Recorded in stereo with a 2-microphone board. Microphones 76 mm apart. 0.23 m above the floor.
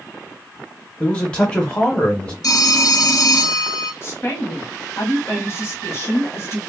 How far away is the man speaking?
About 1.0 m.